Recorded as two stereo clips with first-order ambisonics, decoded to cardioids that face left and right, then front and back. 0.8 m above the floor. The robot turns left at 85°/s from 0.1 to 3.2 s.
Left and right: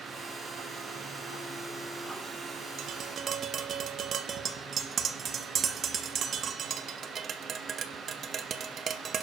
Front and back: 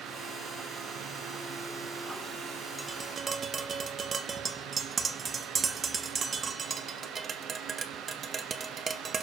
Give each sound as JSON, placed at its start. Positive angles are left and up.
{"t": 2.8, "sound": "tapping", "azimuth_deg": -90, "distance_m": 0.8}